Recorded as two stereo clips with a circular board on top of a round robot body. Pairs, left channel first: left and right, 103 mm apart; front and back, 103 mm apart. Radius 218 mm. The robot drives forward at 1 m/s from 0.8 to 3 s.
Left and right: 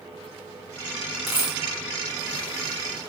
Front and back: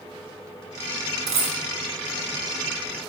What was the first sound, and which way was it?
A dropped coin, 175° right.